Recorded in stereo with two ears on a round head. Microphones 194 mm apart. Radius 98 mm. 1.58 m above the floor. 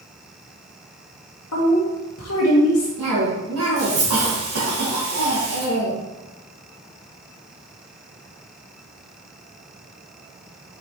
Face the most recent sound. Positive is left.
turn(degrees=-65)  # may be behind; listen again after turning